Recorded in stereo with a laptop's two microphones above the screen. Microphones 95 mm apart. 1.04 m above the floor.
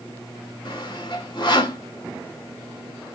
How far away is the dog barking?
No dog barking in this recording.